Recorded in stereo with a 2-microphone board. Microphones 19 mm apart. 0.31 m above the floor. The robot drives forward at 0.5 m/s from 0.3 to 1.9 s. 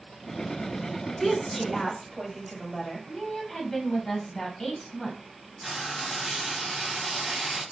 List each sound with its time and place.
1.2 s a woman speaking: 10° left (ahead or behind), 1.5 m; by 3.1 s 5° left (ahead or behind), 1.7 m
3.1 s a woman speaking: 20° left (ahead or behind), 1.5 m
5.6 s frying: 15° right (ahead or behind), 2.5 m